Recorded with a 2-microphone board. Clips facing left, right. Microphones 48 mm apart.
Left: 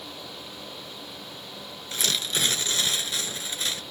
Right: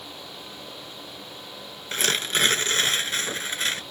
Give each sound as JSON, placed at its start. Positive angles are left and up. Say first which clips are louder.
{"t": 1.9, "sound": "tearing paper", "louder": "right 4 dB", "side_deg": -45}